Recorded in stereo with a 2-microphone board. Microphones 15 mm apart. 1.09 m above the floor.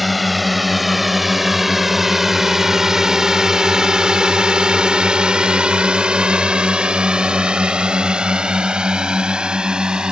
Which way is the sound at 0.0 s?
5° right (ahead or behind).